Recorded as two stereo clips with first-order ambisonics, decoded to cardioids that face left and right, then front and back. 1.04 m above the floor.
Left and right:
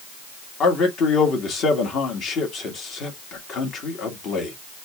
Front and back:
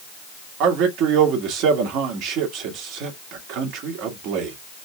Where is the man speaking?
145° left, 1.8 m.